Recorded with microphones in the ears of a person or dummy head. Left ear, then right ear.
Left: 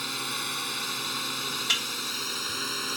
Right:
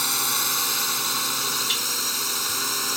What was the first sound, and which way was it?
A drone, 40° right (ahead or behind).